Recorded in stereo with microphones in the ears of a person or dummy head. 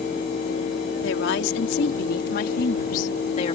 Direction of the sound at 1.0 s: 70° left (ahead or behind).